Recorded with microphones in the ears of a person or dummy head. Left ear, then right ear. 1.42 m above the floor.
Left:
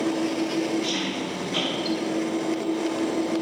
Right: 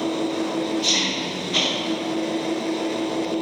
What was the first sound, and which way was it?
An engine running, 30° right (ahead or behind).